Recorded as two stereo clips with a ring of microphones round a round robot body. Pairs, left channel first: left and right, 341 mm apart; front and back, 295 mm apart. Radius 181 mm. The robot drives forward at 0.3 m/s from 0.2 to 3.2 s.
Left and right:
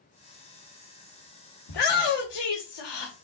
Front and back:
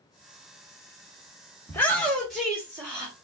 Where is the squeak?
I don't hear a squeak.